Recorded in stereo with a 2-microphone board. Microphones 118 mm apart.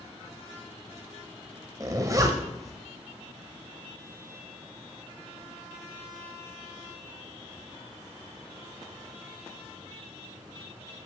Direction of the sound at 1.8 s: 30° right (ahead or behind).